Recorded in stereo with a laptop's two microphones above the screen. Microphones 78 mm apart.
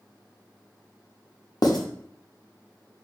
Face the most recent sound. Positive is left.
turn(degrees=60)  # may be behind; listen again after turning